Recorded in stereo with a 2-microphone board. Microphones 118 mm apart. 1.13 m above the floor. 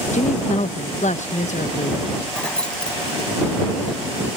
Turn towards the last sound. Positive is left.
turn(degrees=5)  # may be behind; listen again after turning